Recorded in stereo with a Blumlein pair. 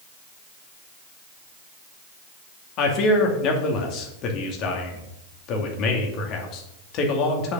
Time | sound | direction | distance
2.8 | a man speaking | 35° left | 2.5 m